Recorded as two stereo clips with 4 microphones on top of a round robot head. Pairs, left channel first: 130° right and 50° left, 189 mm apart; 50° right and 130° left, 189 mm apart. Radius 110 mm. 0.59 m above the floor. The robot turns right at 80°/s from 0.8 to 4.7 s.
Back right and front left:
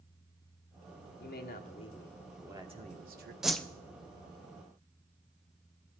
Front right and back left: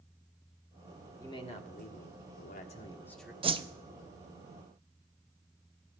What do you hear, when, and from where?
1.2 s a man speaking: 125° right, 1.5 m; by 3.3 s 45° left, 1.5 m
3.4 s a whoosh: 135° left, 0.7 m; by 3.6 s 155° left, 0.7 m